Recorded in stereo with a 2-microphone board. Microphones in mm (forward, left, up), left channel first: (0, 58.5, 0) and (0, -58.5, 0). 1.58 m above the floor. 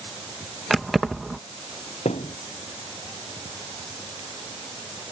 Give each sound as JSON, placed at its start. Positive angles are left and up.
{"t": 0.7, "sound": "keys jangling", "side_deg": 0}
{"t": 2.0, "sound": "a thud", "side_deg": 75}